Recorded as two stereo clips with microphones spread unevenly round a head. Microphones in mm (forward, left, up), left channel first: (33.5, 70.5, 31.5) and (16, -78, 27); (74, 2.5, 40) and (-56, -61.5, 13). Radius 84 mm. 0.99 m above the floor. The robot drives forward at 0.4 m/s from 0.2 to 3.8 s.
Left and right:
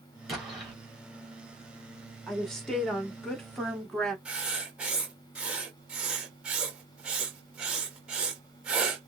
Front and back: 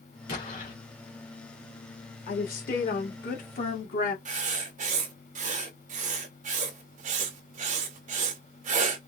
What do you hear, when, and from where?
0.3 s an explosion: 5° right, 3.5 m; by 0.8 s 10° right, 3 m
2.3 s a woman speaking: 5° right, 2.5 m
4.2 s writing: straight behind, 1.9 m